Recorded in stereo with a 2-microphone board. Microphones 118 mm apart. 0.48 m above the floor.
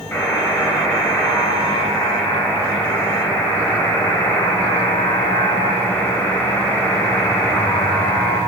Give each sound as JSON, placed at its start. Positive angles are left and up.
{"t": 0.1, "sound": "a buzzer", "side_deg": 20, "distance_m": 1.4}